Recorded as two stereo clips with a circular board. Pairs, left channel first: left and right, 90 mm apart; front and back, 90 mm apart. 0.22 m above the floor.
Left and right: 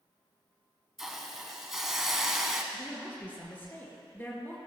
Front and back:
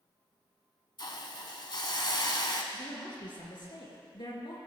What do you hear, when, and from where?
1.0 s a hiss: 5° right, 1.1 m
2.7 s a woman speaking: 25° left, 3 m